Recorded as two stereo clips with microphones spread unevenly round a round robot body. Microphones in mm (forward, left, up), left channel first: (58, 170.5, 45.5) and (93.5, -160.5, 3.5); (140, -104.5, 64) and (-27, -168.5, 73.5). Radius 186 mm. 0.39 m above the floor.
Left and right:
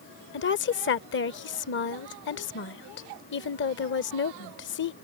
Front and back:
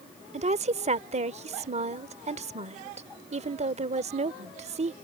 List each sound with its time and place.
0.3 s a woman speaking: 155° left